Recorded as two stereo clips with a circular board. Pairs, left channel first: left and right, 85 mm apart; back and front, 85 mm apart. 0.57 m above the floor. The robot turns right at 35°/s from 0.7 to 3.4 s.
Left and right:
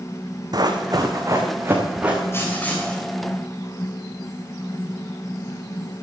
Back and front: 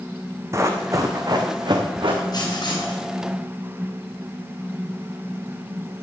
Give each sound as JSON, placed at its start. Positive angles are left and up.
{"t": 0.5, "sound": "running footsteps", "azimuth_deg": -55, "distance_m": 1.7}
{"t": 2.3, "sound": "writing", "azimuth_deg": 150, "distance_m": 3.0}